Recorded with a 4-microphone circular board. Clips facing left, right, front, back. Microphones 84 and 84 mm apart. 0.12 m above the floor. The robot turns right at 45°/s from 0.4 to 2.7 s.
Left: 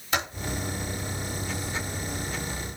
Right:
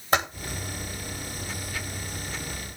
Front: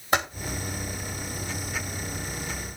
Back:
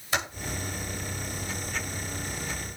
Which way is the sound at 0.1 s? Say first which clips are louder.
Right 5 dB, front 5 dB; 40° right.